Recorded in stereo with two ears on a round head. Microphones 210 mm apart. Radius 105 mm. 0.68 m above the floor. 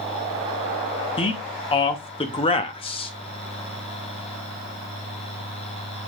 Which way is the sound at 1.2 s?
25° left (ahead or behind).